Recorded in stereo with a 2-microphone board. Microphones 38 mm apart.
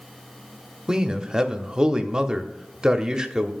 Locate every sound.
0.9 s a man speaking: 20° right (ahead or behind), 0.7 m